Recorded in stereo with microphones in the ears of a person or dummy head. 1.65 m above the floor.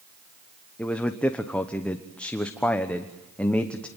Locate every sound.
0.8 s a man speaking: 5° left (ahead or behind), 1.1 m